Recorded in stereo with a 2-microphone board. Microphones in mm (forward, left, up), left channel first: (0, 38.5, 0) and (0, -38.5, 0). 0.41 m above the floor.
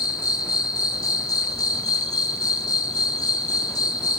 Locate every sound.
0.0 s an insect: 60° left (ahead or behind), 1.3 m